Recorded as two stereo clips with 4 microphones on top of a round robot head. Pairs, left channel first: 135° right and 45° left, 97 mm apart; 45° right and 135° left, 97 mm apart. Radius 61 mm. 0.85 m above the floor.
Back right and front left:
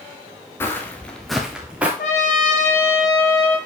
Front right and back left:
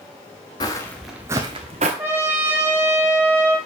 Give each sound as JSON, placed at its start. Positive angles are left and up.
{"t": 0.6, "sound": "footsteps", "azimuth_deg": -75, "distance_m": 0.9}
{"t": 2.0, "sound": "a trumpet", "azimuth_deg": -155, "distance_m": 2.5}